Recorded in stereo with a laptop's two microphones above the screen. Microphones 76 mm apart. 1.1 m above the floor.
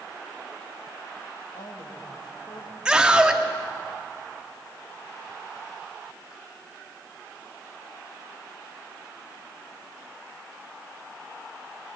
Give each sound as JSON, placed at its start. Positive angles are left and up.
{"t": 1.5, "sound": "a woman speaking", "side_deg": 85, "distance_m": 6.0}
{"t": 2.9, "sound": "a scream", "side_deg": -10, "distance_m": 2.0}